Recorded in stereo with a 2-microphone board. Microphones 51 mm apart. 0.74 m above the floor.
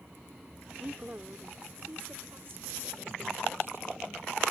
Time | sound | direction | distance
0.8 | a woman speaking | 35° right (ahead or behind) | ?